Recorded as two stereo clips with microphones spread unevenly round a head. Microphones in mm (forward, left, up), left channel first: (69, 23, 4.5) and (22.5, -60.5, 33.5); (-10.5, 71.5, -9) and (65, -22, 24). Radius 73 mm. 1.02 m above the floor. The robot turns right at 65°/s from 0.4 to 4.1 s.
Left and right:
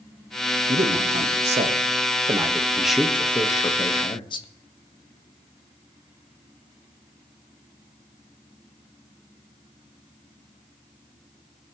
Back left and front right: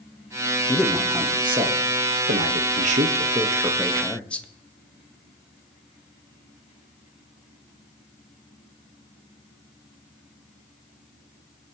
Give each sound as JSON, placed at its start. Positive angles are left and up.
{"t": 0.7, "sound": "a man speaking", "azimuth_deg": -165, "distance_m": 1.3}